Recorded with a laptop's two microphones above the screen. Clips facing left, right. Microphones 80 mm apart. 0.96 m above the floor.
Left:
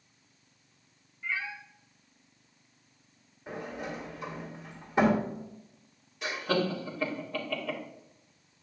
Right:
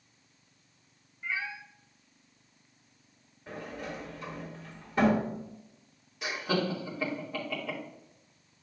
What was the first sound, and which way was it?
A cat meowing, 20° right (ahead or behind).